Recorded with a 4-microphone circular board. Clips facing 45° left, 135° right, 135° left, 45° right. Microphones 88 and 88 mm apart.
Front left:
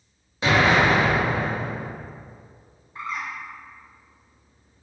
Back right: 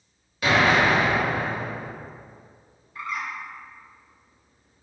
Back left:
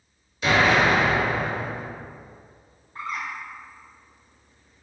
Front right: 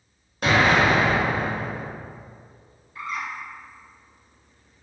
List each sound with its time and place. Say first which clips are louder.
0.4 s an explosion: front left 1 dB, front right 1 dB; 15° right, 0.7 m
3.0 s a bird: even, even; 100° left, 0.5 m